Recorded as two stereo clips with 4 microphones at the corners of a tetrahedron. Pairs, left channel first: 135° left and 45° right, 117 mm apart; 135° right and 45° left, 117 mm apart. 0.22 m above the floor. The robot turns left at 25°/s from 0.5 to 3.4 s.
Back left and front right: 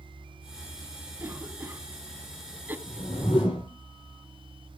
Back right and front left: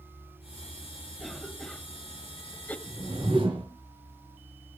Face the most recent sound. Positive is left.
turn(degrees=90)